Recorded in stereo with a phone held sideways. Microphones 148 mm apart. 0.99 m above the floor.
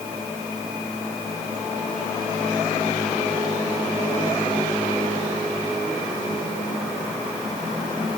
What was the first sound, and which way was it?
Only background noise.